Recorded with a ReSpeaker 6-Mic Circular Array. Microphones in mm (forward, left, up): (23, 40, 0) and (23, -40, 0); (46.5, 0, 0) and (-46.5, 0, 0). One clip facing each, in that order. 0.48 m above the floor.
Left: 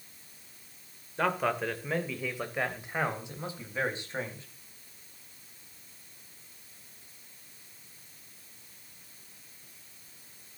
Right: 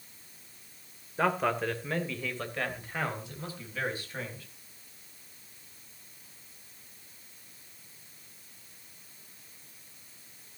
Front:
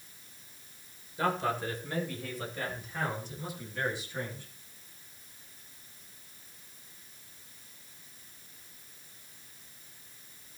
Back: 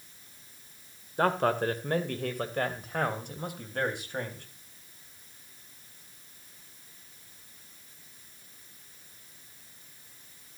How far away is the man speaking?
About 2 m.